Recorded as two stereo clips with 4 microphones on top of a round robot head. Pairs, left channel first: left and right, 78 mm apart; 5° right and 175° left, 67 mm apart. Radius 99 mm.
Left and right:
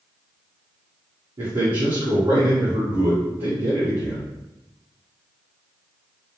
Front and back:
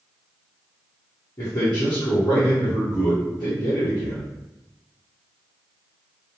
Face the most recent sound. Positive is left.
turn(degrees=-60)